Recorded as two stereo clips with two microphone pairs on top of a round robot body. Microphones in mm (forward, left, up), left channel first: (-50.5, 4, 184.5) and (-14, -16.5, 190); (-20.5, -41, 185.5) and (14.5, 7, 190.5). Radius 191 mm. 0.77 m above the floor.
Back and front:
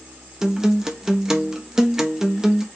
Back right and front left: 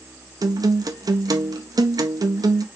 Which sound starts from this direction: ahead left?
A guitar, at 0.4 s.